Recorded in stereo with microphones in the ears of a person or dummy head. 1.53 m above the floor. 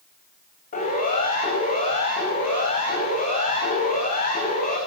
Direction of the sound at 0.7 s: 40° left (ahead or behind).